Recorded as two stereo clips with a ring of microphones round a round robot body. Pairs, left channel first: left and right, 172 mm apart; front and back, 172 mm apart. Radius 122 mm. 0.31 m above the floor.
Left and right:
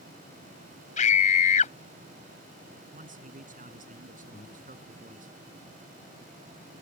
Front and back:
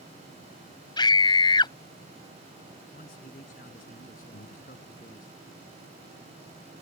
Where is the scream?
60° left.